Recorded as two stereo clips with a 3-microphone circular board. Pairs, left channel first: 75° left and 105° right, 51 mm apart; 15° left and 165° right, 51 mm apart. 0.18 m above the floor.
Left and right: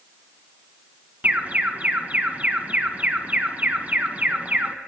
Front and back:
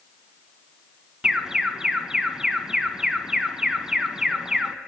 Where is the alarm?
100° right, 1.3 m.